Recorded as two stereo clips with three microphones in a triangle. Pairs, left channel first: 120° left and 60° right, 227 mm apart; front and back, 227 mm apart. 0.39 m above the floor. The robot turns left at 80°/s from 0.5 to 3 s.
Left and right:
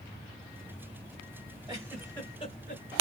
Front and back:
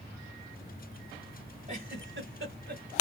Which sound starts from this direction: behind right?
A giggle, at 1.7 s.